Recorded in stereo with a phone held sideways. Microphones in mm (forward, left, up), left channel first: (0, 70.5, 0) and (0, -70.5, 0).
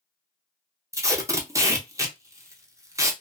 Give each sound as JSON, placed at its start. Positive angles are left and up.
{"t": 0.9, "sound": "tape being pulled", "side_deg": -20, "distance_m": 0.6}